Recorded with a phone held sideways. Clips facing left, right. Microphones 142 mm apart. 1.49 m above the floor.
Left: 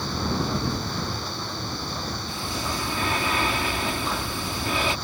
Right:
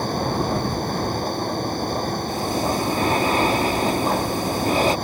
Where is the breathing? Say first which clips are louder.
Right 9 dB; 40° right (ahead or behind).